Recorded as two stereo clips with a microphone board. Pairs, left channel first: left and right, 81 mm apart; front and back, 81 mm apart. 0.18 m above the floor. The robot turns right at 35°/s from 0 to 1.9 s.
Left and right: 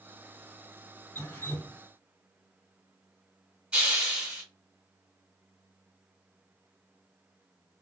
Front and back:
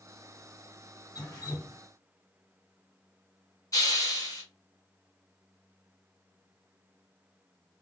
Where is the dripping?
25° left, 2 m; by 1.8 s 50° left, 2 m.